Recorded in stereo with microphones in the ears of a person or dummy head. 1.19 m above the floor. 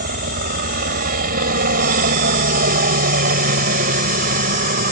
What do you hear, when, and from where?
0.0 s a helicopter: 50° right (ahead or behind)